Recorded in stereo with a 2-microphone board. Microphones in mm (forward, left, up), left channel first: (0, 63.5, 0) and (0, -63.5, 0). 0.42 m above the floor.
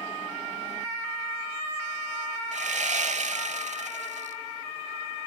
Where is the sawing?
65° right (ahead or behind), 0.8 m.